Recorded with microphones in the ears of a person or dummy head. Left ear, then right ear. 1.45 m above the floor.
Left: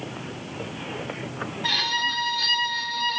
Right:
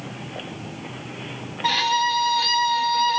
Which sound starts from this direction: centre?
A violin, at 1.6 s.